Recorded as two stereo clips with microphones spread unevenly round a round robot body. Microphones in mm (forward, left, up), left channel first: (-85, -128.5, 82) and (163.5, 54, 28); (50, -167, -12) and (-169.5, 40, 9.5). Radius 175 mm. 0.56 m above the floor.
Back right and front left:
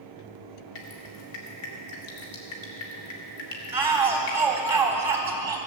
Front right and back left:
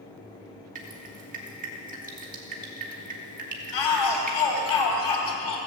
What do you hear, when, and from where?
0.8 s dripping: 160° right, 2.5 m
3.7 s a shout: 45° right, 3 m